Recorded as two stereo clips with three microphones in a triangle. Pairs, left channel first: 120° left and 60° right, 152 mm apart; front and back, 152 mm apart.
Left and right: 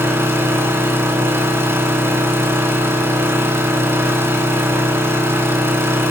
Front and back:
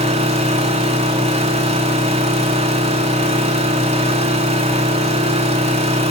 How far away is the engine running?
About 4 m.